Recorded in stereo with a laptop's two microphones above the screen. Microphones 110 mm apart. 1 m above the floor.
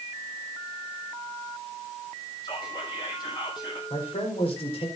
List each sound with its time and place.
2.4 s whispering: 45° left (ahead or behind), 6.5 m
3.9 s a man speaking: 65° left (ahead or behind), 4.5 m